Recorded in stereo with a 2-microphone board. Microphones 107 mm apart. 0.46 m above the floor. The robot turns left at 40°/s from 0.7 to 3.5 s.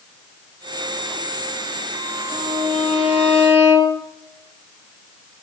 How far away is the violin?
About 3 m.